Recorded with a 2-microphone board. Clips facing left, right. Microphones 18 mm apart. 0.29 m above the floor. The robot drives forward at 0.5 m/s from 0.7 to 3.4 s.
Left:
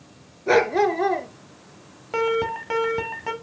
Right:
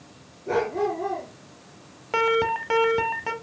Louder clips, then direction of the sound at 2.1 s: Right 1 dB; 20° right (ahead or behind).